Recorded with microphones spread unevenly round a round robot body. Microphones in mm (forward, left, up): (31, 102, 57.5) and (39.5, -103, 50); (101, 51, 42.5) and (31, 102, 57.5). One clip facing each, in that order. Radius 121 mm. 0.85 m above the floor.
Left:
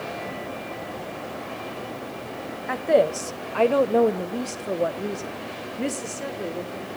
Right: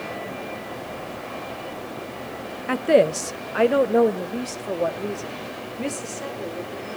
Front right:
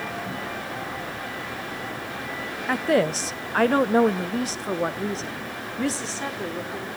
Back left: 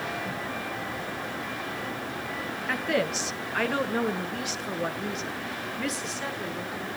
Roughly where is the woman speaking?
Ahead right.